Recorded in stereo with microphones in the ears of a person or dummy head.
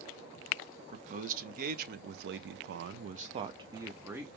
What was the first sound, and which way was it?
A man speaking, 45° right (ahead or behind).